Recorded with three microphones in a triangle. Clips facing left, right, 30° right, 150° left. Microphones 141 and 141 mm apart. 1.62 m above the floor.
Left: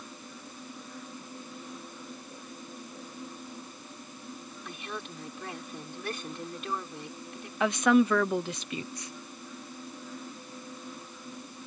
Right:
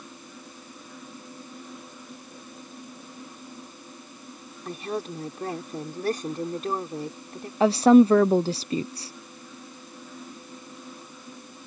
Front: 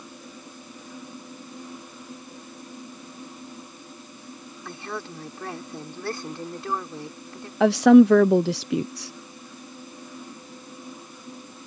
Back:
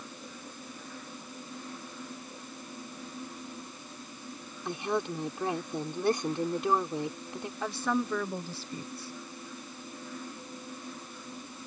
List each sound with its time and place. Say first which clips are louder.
4.7 s a woman speaking: right 10 dB, back 4 dB; 140° right
7.6 s a woman speaking: right 8 dB, front 19 dB; 30° right